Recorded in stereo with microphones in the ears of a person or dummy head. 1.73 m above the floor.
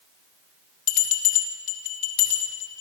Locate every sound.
0.9 s a bell: 45° left (ahead or behind), 4.5 m